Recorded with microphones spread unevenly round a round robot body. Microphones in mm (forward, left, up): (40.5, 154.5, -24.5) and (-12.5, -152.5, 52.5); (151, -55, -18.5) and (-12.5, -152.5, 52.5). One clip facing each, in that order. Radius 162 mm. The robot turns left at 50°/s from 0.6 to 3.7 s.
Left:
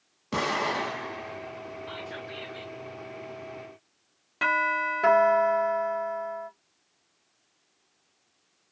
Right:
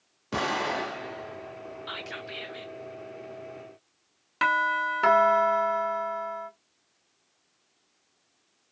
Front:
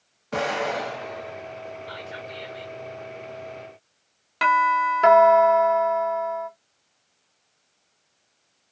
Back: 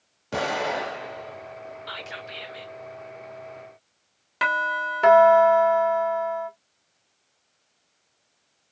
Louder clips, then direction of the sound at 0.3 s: Even, front 1 dB; straight behind.